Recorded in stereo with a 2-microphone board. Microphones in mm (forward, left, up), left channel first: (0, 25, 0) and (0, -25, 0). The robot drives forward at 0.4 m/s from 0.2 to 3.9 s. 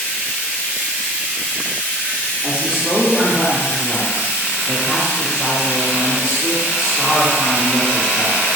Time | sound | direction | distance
0.0 | running water | 35° left (ahead or behind) | 2.5 m
2.4 | a man speaking | 30° left (ahead or behind) | 2.5 m